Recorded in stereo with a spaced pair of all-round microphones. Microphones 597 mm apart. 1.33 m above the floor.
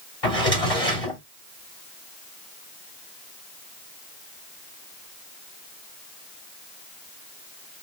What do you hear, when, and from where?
0.2 s a drawer: 70° left (ahead or behind), 2.5 m